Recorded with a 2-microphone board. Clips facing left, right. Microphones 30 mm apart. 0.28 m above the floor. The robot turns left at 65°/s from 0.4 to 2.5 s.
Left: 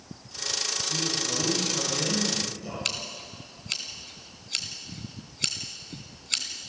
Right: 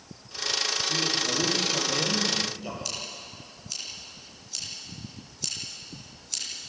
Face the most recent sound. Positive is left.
turn(degrees=60)  # may be behind; listen again after turning